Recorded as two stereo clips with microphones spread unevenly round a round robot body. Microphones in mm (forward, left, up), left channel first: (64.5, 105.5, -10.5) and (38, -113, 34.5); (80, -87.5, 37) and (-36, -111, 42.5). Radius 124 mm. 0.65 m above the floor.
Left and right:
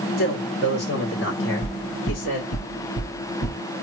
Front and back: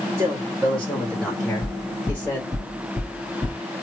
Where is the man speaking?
120° left, 1.9 m; by 2.5 s 85° left, 2.5 m.